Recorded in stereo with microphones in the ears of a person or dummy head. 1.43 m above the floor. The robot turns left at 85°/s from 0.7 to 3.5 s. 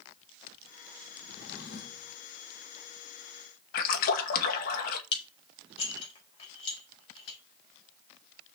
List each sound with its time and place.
1.3 s a drawer: 125° left, 2 m; by 2.1 s 55° left, 2 m
3.7 s a splash: 55° left (ahead or behind), 2 m
5.1 s dishes clattering: 35° left (ahead or behind), 5 m